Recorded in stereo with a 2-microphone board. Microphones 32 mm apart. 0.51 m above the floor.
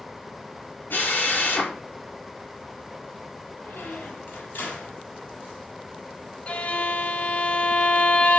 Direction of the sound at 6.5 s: 45° left (ahead or behind).